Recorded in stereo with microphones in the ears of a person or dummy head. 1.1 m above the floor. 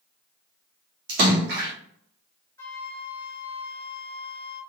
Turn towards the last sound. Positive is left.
turn(degrees=20)  # may be behind; listen again after turning